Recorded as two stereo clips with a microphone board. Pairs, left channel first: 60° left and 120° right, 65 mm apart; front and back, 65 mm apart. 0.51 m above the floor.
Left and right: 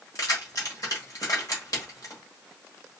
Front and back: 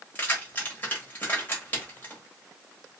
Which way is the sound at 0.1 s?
55° left.